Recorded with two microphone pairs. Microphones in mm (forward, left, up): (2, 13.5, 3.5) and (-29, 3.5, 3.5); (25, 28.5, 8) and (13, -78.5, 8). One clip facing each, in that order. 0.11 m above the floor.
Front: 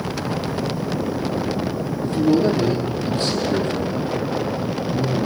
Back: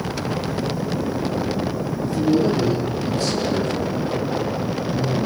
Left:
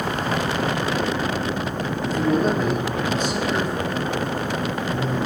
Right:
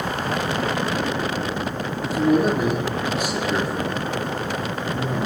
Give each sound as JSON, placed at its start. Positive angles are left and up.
{"t": 2.0, "sound": "a man speaking", "azimuth_deg": -20, "distance_m": 4.5}